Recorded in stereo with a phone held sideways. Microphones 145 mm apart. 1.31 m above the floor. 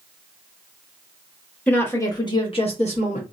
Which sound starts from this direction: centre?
A woman speaking, at 1.7 s.